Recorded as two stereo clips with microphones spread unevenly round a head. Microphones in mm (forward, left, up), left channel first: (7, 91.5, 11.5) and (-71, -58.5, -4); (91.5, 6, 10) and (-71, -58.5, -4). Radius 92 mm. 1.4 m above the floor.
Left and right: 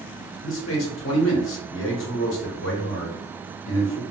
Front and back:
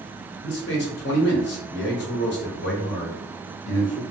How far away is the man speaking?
About 0.9 m.